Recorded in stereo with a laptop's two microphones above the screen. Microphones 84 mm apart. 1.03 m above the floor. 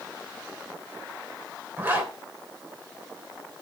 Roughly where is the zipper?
Right.